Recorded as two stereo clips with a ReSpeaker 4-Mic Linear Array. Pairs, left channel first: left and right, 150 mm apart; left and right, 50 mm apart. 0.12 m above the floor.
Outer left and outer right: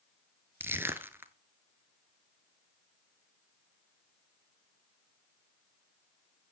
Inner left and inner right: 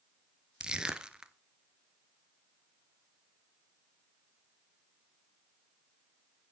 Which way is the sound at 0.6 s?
15° right (ahead or behind).